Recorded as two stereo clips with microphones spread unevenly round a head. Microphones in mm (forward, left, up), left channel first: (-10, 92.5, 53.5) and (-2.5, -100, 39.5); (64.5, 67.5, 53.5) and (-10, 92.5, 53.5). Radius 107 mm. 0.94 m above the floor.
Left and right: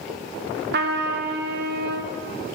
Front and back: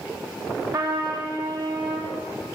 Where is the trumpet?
125° right, 1.1 m.